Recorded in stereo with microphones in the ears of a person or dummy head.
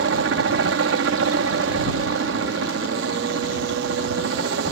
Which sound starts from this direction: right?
A helicopter, at 0.0 s.